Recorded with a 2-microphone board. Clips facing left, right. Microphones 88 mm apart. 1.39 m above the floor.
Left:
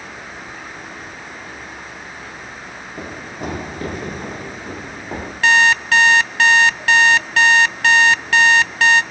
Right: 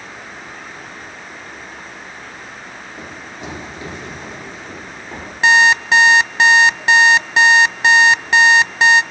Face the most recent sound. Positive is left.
turn(degrees=-20)  # may be behind; listen again after turning